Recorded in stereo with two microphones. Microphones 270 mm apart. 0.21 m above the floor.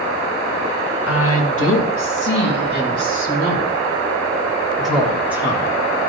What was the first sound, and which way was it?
A woman speaking, 55° left (ahead or behind).